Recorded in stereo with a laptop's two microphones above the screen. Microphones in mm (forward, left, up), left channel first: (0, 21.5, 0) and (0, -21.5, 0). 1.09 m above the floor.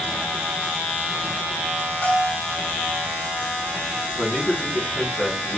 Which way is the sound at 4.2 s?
10° right (ahead or behind).